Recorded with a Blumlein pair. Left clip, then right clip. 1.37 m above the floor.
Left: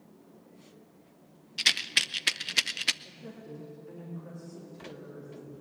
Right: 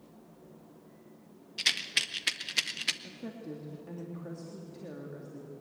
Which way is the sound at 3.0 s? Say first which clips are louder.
Right 3 dB; 25° right.